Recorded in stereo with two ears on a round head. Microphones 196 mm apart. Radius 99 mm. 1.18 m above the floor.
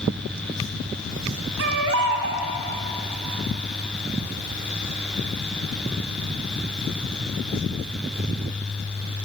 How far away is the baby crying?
About 2.5 m.